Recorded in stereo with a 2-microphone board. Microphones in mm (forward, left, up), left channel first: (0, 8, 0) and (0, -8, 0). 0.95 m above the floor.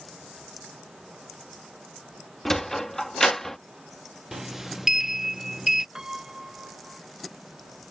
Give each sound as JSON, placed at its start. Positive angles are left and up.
{"t": 2.5, "sound": "a sliding door", "side_deg": 30}
{"t": 4.3, "sound": "a sliding door", "side_deg": -30}
{"t": 6.0, "sound": "a piano", "side_deg": -75}